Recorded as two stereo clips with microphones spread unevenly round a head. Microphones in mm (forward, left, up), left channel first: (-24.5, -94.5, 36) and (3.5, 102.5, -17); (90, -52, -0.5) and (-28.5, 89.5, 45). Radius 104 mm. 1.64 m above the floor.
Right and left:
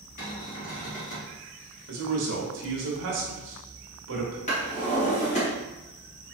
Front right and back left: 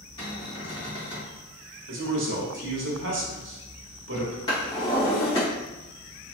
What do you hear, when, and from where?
0.2 s a cupboard door: 125° right, 1.6 m
1.9 s a man speaking: 110° left, 1.1 m
4.5 s a drawer: 130° right, 1.4 m